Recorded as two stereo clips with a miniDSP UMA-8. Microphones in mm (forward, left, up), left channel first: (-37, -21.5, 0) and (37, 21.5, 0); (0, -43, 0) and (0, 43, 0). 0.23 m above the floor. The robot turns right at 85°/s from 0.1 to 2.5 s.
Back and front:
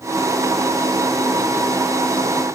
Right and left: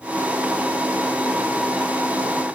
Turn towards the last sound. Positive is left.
No sound to turn to.